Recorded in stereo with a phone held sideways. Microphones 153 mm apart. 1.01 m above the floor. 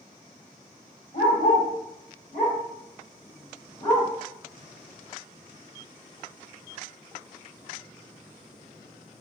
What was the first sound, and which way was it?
A dog barking, 70° left (ahead or behind).